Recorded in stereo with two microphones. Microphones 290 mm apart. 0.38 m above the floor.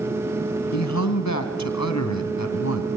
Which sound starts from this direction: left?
A man speaking, at 0.7 s.